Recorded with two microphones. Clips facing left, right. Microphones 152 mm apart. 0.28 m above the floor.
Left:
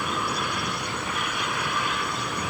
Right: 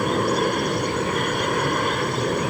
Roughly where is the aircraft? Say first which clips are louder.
Right 9 dB; right.